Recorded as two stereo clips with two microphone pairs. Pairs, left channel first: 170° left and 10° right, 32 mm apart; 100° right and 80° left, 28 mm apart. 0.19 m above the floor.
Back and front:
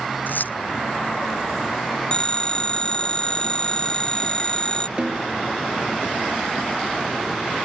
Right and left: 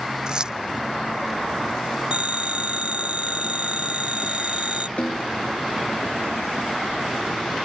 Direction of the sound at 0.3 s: 145° left.